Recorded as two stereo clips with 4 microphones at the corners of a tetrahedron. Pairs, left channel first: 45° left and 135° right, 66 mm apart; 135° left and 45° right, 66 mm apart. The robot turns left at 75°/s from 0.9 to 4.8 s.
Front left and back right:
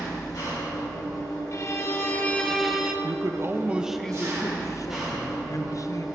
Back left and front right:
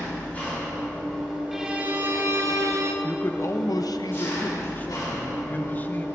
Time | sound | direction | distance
0.0 | an engine running | 70° left | 3 m
1.5 | a violin | 40° left | 0.9 m
3.0 | a man speaking | 155° right | 0.7 m